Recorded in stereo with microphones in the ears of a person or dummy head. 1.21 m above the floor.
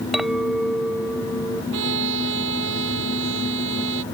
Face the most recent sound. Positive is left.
turn(degrees=-75)  # may be behind; listen again after turning